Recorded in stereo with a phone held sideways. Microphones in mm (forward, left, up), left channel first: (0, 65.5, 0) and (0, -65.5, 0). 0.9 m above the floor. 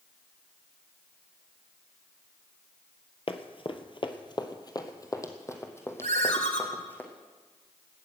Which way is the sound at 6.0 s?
85° left.